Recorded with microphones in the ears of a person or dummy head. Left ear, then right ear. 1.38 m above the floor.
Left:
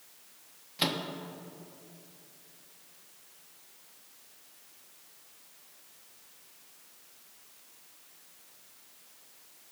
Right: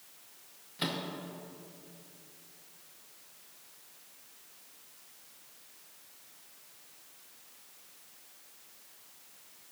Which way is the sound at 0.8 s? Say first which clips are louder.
Left 5 dB; 20° left (ahead or behind).